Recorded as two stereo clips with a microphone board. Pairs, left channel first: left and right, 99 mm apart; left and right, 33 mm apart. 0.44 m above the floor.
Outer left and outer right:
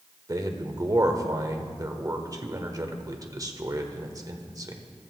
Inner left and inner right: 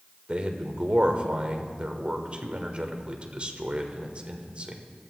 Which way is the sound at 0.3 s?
40° right (ahead or behind).